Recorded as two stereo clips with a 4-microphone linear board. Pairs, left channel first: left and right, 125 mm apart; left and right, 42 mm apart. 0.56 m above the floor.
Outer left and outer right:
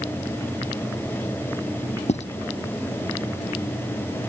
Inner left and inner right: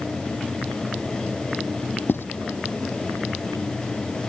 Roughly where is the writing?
Left.